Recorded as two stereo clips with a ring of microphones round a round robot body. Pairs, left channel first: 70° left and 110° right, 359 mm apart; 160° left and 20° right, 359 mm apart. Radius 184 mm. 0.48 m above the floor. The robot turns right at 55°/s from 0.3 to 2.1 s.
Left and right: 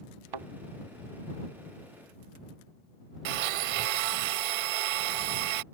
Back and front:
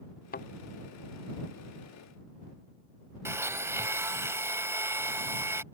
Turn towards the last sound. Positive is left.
turn(degrees=-105)